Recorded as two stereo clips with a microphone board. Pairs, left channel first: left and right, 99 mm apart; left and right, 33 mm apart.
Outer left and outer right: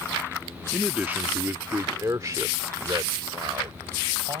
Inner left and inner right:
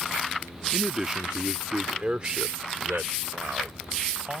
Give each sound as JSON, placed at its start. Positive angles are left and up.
{"t": 0.7, "sound": "a man speaking", "side_deg": -5}